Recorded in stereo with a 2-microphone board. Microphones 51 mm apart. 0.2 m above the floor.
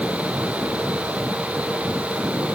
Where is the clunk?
No clunk in this recording.